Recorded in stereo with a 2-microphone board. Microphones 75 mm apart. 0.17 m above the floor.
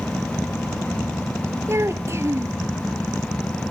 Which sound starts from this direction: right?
A child speaking, at 1.7 s.